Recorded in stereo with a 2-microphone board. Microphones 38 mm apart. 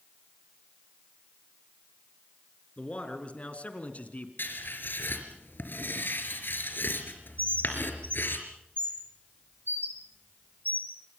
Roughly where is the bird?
Right.